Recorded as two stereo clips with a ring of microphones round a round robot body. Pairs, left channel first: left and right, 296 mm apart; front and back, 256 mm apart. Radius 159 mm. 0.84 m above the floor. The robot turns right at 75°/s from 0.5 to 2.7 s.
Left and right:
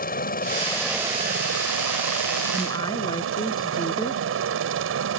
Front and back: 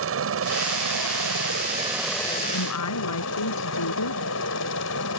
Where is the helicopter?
150° left; by 5.2 s 45° right.